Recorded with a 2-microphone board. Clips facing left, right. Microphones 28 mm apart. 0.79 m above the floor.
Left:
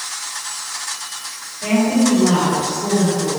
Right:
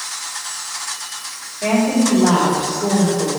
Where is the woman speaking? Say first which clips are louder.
Even; 70° right (ahead or behind), 4 m.